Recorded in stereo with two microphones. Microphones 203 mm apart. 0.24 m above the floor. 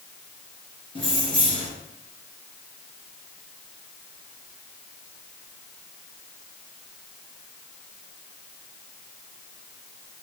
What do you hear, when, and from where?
0.9 s keys jangling: 25° left (ahead or behind), 3 m